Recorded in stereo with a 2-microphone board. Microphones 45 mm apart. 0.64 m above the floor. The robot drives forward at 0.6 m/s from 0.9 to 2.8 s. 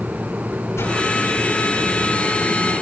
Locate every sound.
0.8 s a whoosh: 70° left (ahead or behind), 9.5 m